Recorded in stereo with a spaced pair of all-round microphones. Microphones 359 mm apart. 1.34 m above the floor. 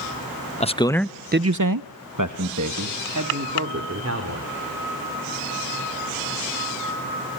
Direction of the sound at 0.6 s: 20° left (ahead or behind).